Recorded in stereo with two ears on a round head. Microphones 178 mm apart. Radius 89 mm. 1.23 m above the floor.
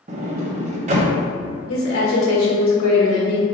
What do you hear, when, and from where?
0.1 s a sliding door: 35° right (ahead or behind), 0.6 m
1.7 s a woman speaking: 80° left, 1.5 m